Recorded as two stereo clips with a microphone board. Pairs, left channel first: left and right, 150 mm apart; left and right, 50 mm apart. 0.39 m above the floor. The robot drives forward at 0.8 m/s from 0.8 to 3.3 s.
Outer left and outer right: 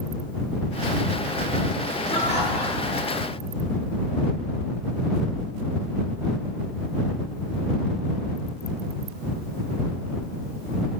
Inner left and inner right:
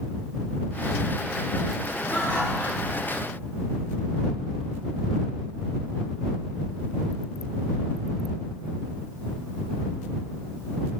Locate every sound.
2.1 s laughter: 40° left (ahead or behind), 5 m; by 3.1 s 45° left (ahead or behind), 4.5 m